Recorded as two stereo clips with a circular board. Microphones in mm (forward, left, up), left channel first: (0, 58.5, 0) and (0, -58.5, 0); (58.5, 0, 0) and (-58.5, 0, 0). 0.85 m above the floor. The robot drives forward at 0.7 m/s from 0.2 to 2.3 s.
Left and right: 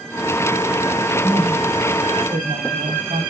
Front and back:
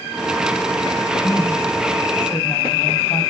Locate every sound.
1.2 s a woman speaking: 60° right, 6 m; by 3.2 s 70° right, 5.5 m